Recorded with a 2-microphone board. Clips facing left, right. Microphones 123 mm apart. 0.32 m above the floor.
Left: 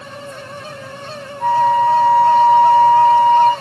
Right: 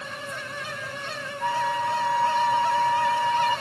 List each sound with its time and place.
1.4 s a flute: 55° left (ahead or behind), 1.7 m